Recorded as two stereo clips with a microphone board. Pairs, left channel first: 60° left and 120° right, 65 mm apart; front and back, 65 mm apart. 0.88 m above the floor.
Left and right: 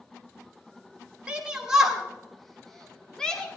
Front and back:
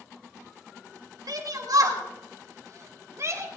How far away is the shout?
About 2.5 m.